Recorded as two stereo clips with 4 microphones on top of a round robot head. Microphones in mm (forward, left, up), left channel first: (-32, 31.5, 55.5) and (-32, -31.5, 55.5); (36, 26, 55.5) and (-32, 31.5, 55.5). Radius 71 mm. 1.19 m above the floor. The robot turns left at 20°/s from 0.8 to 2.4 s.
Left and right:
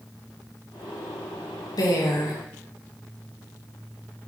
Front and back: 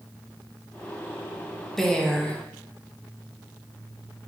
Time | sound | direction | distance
1.8 | a woman speaking | 80° left | 1.9 m